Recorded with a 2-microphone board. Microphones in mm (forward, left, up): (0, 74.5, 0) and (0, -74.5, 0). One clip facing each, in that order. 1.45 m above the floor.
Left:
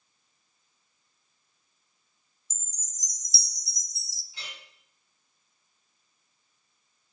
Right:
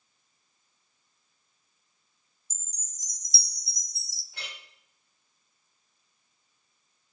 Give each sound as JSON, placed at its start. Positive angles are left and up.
{"t": 2.5, "sound": "a chime", "side_deg": -60, "distance_m": 0.5}
{"t": 4.3, "sound": "a clink", "side_deg": -70, "distance_m": 3.5}